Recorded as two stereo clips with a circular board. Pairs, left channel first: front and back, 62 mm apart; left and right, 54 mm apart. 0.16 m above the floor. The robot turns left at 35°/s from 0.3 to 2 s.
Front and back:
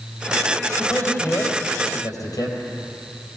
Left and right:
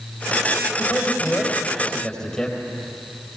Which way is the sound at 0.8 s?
50° left.